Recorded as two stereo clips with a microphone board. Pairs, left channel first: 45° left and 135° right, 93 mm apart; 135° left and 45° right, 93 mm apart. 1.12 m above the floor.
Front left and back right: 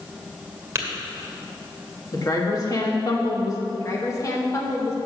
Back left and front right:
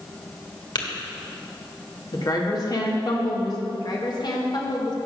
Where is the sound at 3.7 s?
100° left, 1.5 m.